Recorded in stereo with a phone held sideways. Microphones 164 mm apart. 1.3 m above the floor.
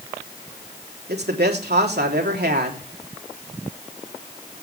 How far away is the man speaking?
About 3.5 m.